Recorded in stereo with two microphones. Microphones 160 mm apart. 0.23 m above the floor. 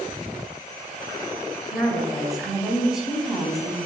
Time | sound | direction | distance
1.7 | a woman speaking | centre (ahead or behind) | 1.2 m